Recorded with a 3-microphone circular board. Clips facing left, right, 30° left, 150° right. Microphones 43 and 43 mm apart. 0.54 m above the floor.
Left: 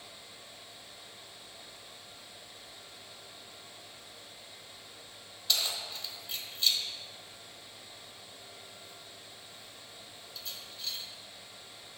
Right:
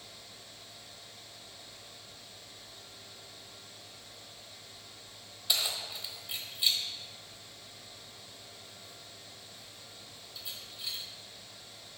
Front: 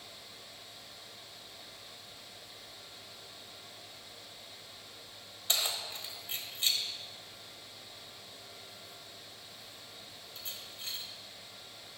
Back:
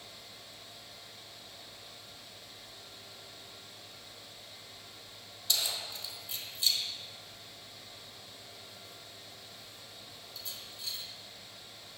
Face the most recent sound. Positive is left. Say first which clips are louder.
# even, even
turn(degrees=-15)